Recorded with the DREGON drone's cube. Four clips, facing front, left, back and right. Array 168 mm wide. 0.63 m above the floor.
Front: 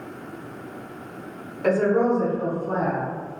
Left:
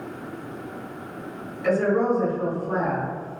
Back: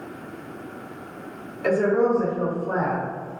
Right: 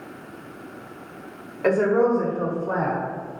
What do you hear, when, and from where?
1.6 s a woman speaking: 75° right, 1.9 m; by 3.1 s 135° right, 1.2 m